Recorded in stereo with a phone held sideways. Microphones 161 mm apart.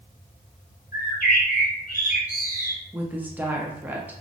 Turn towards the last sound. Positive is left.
turn(degrees=-10)  # may be behind; listen again after turning